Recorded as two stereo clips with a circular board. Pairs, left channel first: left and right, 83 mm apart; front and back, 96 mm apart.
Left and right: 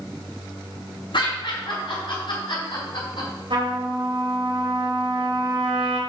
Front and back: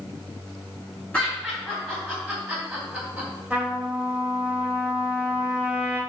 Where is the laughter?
80° left, 4 m; by 3.3 s 95° left, 3.5 m.